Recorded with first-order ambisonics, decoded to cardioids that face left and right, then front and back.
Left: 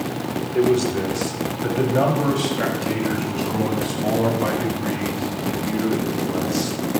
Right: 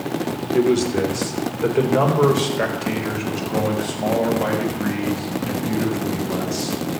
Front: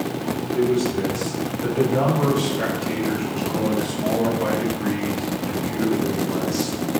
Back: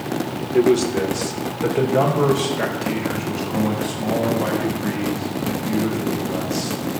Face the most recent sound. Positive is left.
turn(degrees=-90)